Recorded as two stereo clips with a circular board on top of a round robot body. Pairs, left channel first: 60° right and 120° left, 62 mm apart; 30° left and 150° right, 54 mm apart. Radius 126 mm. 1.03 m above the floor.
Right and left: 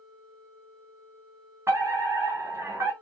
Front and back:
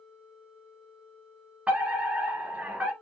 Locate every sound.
1.7 s a fire alarm: 150° left, 2.5 m